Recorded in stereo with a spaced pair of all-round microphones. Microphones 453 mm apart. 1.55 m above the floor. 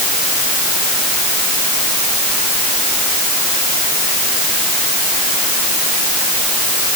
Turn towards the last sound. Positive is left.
No sound to turn to.